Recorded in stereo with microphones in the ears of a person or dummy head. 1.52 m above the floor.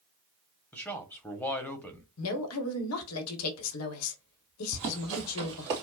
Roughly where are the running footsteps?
Right.